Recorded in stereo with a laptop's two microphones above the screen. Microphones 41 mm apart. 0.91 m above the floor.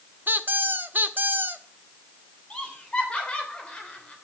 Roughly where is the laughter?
Left.